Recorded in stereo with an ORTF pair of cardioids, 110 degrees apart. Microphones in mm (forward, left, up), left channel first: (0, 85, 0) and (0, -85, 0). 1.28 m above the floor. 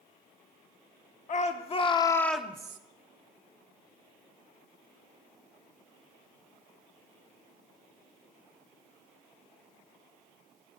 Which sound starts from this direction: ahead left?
A shout, at 1.3 s.